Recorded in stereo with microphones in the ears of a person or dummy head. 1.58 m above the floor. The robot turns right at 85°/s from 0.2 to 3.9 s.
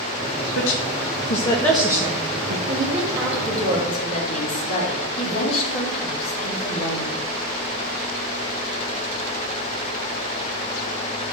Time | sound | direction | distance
0.6 | a woman speaking | 70° left (ahead or behind) | 1.6 m
2.7 | a woman speaking | 65° right | 5 m